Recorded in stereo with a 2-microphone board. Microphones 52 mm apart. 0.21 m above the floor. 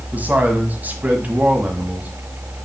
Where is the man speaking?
30° right (ahead or behind), 1.6 m.